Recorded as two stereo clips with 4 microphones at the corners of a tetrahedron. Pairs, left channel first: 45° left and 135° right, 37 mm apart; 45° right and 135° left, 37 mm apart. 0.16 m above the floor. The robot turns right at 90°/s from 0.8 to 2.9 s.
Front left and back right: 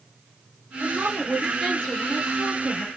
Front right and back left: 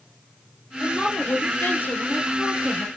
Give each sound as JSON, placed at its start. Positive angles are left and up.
{"t": 0.8, "sound": "a woman speaking", "azimuth_deg": -110, "distance_m": 2.5}